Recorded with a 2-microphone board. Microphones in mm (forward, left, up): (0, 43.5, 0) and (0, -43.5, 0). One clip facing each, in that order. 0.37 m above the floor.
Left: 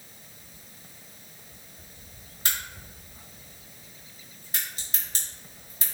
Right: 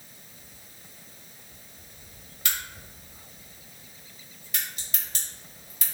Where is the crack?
35° left (ahead or behind), 1.6 m.